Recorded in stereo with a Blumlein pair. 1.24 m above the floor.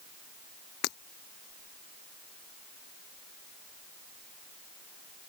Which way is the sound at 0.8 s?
40° left.